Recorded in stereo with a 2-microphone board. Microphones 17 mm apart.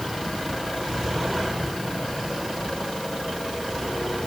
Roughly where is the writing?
No writing in this recording.